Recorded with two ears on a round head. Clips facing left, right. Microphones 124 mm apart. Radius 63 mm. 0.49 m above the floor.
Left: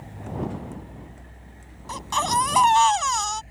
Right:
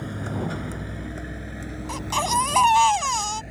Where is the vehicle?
80° right; by 3.5 s 75° right (ahead or behind).